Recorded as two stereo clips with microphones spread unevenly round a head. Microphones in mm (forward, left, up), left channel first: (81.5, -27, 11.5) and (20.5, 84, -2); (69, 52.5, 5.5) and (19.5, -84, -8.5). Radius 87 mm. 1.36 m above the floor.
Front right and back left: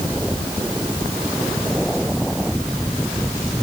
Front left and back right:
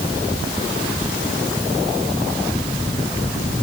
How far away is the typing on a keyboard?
I don't hear typing on a keyboard.